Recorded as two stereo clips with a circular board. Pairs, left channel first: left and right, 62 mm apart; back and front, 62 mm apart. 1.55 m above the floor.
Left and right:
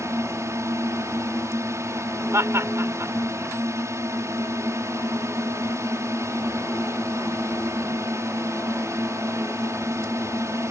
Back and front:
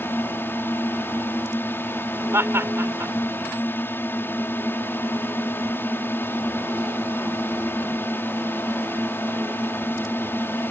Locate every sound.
0.0 s a drone: 125° right
2.3 s laughter: 50° right